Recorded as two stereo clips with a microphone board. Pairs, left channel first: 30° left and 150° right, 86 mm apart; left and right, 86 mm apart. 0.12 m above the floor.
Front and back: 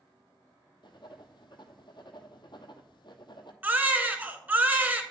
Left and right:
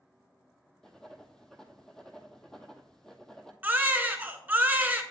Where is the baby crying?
120° right, 0.6 m.